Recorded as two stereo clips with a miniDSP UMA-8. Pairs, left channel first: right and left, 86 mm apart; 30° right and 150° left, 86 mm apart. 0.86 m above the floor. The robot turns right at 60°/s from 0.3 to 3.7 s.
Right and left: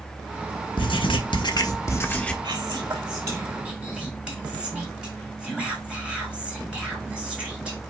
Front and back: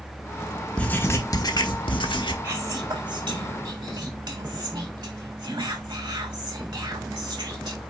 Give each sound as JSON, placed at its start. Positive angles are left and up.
{"t": 0.8, "sound": "writing", "azimuth_deg": -105, "distance_m": 1.2}
{"t": 2.4, "sound": "whispering", "azimuth_deg": 90, "distance_m": 4.0}